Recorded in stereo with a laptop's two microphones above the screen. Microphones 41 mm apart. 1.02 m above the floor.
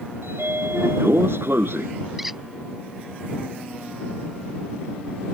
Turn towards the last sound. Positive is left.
turn(degrees=-5)  # may be behind; listen again after turning